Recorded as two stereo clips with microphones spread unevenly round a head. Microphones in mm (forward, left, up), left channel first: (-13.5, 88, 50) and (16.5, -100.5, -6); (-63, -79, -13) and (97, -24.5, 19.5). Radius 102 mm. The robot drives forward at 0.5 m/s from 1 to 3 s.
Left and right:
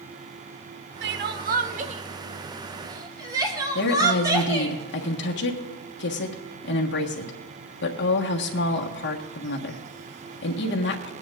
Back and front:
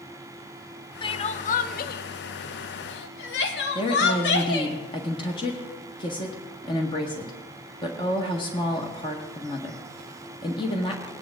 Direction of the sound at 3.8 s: 135° left.